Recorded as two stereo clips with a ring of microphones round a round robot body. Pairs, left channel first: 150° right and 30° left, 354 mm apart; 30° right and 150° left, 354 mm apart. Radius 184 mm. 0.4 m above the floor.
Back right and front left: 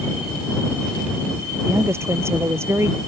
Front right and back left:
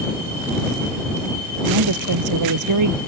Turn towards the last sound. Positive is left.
turn(degrees=115)